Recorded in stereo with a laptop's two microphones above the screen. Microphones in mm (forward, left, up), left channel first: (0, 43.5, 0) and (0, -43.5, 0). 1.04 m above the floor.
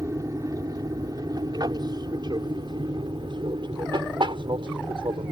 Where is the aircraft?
40° right (ahead or behind); by 5.3 s 70° right (ahead or behind).